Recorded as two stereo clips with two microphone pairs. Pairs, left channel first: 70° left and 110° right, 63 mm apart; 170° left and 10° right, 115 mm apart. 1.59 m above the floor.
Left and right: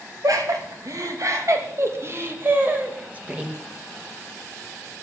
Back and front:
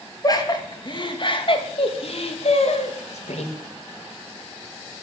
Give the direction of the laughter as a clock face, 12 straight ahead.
4 o'clock.